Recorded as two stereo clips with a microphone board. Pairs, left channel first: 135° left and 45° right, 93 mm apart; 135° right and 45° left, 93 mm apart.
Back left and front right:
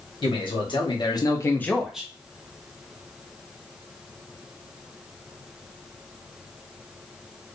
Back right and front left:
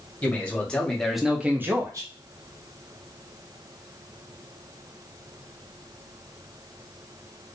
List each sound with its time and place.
0.2 s a man speaking: 155° left, 1.2 m; by 2.1 s 25° left, 0.6 m